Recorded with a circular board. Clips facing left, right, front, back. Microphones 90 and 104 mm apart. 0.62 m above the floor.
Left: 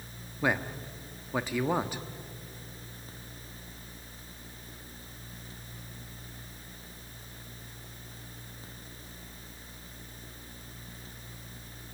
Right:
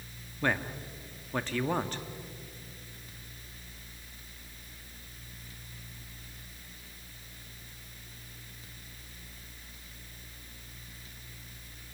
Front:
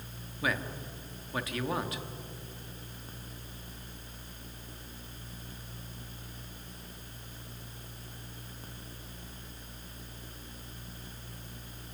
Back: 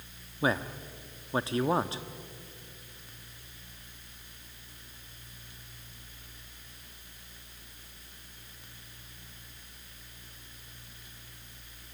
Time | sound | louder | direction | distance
0.4 | a man speaking | left 1 dB, back 4 dB | 160° left | 1.0 m